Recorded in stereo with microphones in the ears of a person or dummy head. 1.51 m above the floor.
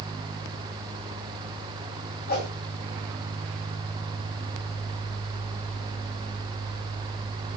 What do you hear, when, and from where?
2.3 s a whoosh: 50° left (ahead or behind), 1.4 m